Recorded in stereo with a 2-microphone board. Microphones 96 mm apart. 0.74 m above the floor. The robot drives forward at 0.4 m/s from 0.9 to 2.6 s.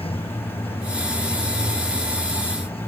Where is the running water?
85° left.